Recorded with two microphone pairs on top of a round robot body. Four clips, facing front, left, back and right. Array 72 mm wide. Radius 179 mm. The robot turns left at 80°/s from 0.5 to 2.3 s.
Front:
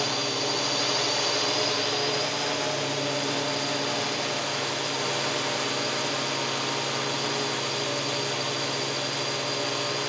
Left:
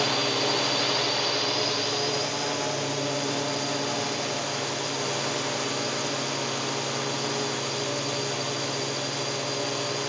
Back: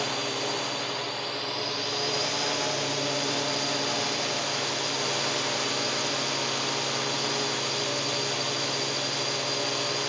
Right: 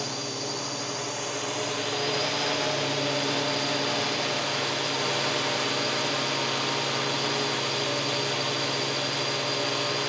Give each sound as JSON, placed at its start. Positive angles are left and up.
{"t": 0.0, "sound": "a drone", "azimuth_deg": 85}